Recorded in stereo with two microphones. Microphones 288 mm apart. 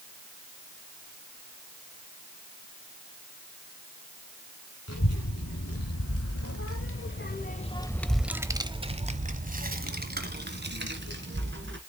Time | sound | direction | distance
4.9 | a child speaking | 60° left (ahead or behind) | 1.6 m